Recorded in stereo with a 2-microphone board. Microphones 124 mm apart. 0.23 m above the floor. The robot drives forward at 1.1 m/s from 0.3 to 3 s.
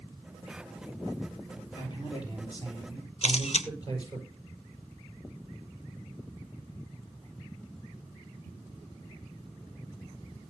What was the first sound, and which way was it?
A man speaking, 40° left (ahead or behind).